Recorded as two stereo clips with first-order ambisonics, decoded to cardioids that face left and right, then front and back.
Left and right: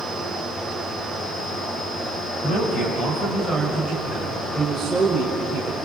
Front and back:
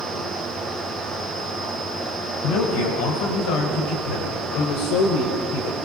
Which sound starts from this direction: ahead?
A man speaking, at 2.4 s.